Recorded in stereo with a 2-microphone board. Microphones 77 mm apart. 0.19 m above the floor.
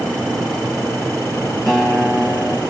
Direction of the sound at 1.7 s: 5° left (ahead or behind).